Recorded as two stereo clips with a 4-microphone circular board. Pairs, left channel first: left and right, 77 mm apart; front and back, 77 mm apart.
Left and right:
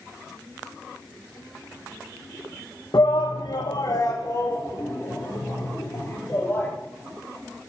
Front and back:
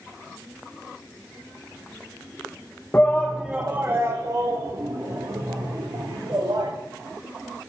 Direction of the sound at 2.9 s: 65° left.